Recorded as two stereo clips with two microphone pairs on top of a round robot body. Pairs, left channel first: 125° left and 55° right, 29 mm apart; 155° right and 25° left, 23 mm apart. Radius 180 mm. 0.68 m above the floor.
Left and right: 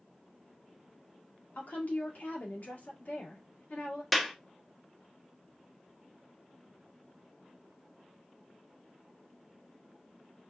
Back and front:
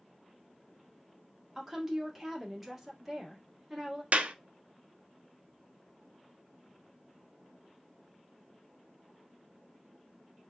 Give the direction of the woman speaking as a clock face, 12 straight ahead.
8 o'clock.